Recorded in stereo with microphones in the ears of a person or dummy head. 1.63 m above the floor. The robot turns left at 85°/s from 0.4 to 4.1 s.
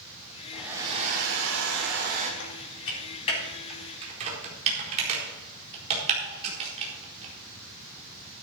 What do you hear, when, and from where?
0.5 s a hair dryer: 5° left, 2.5 m; by 2.3 s 145° right, 2.5 m
2.4 s typing on a keyboard: 70° left (ahead or behind), 4.5 m; by 8.4 s 35° right (ahead or behind), 4.5 m